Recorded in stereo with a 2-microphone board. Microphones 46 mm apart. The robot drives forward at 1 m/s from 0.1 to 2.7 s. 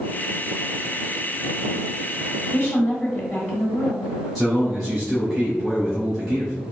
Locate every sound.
2.5 s a woman speaking: 30° left (ahead or behind), 1.3 m
4.3 s a man speaking: centre (ahead or behind), 2.0 m